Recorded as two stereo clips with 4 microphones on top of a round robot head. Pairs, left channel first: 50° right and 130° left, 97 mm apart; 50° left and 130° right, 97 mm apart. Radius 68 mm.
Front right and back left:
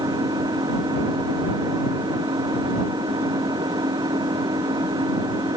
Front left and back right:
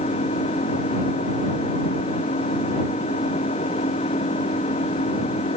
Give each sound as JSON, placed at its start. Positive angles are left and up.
{"t": 0.0, "sound": "an engine running", "azimuth_deg": 80}